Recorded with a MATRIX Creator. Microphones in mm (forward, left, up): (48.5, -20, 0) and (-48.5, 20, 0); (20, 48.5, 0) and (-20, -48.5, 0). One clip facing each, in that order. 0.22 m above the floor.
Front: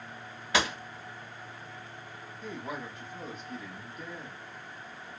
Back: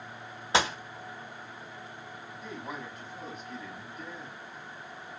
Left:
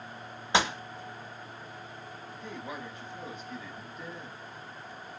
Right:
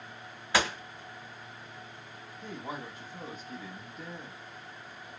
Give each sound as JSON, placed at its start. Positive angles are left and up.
{"t": 0.5, "sound": "a gunshot", "azimuth_deg": 120, "distance_m": 1.0}
{"t": 2.4, "sound": "a woman speaking", "azimuth_deg": -110, "distance_m": 1.2}